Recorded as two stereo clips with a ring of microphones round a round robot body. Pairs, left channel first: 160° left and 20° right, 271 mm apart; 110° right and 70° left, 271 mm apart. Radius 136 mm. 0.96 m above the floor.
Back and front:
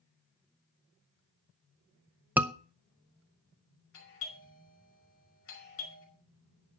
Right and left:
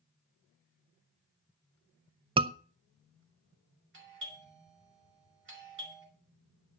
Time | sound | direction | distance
2.4 | a scream | 50° left | 0.5 m
3.9 | a doorbell | 115° left | 5.5 m